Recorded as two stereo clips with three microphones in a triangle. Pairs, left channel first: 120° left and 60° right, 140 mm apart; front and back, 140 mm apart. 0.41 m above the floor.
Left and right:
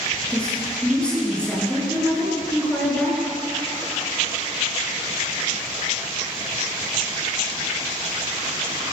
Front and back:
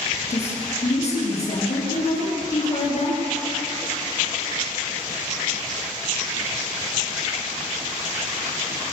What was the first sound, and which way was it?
A woman speaking, 35° left.